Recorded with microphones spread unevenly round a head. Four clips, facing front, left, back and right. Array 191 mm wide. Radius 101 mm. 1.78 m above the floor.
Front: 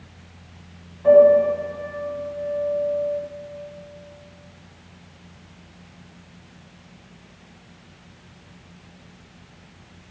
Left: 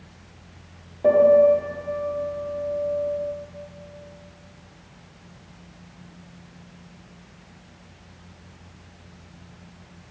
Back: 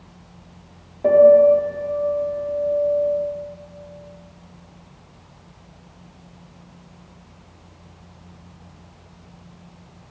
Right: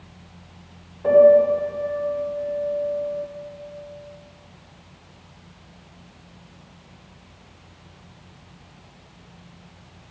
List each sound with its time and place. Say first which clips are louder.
1.0 s a piano: right 2 dB, back 2 dB; 145° left, 2 m